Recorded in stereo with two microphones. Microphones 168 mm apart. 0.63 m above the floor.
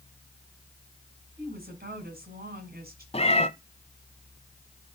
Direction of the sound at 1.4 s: 65° right (ahead or behind).